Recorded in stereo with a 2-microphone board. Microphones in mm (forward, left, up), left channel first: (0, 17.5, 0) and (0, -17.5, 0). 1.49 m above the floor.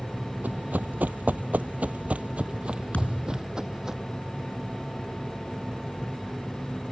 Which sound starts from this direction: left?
A thud, at 2.9 s.